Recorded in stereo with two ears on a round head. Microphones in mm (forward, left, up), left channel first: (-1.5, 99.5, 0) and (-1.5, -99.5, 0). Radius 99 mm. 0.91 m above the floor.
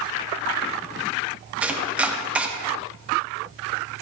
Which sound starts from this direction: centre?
Chopping, at 1.6 s.